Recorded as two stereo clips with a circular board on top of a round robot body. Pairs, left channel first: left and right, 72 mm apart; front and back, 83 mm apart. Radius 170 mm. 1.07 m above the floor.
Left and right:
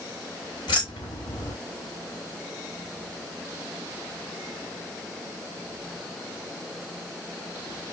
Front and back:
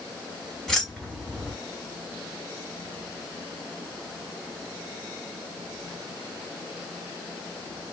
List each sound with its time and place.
0.7 s keys jangling: 85° left, 2 m